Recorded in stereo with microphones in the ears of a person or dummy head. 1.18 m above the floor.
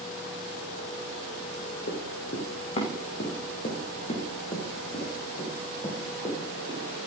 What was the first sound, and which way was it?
Running footsteps, 50° left (ahead or behind).